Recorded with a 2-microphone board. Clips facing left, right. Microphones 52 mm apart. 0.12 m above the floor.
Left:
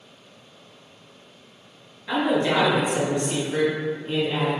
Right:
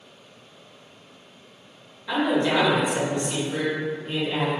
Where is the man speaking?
5° left (ahead or behind), 2.0 m; by 4.5 s 5° right (ahead or behind), 1.7 m.